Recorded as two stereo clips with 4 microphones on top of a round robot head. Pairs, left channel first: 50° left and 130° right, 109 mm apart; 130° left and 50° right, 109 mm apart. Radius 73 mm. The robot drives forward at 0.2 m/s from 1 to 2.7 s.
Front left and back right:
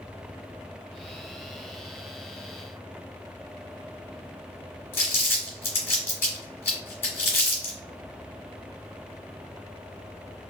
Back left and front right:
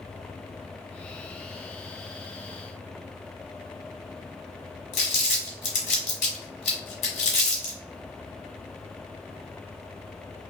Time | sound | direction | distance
4.9 | crumpling | 115° left | 1.2 m